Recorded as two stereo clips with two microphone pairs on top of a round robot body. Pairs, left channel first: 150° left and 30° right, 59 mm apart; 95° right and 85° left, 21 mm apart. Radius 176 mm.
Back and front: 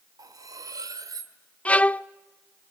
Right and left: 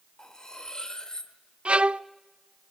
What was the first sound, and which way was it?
Cutlery clinking, 40° right.